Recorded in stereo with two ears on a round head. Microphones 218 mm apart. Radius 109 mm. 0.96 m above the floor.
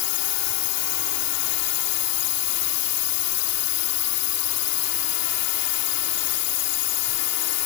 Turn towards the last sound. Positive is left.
turn(degrees=75)  # may be behind; listen again after turning